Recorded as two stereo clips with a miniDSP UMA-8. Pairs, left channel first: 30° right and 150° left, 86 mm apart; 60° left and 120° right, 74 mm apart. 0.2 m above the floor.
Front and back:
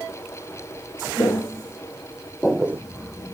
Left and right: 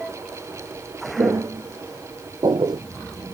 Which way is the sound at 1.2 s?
90° right.